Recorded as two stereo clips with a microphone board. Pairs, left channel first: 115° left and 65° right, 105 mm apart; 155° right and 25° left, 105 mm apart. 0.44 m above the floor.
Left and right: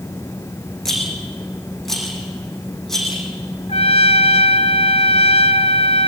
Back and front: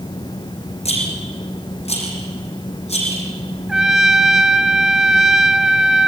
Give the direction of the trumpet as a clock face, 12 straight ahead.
8 o'clock.